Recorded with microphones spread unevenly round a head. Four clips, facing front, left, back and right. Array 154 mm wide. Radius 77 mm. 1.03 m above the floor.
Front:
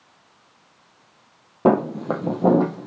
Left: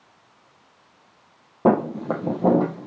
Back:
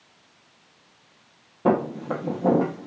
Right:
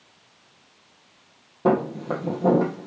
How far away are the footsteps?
About 2 m.